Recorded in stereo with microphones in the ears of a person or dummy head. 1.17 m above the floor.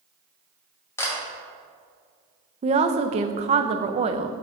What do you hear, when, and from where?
1.0 s a camera shutter: 15° left (ahead or behind), 1.6 m
2.6 s a woman speaking: 30° right (ahead or behind), 0.5 m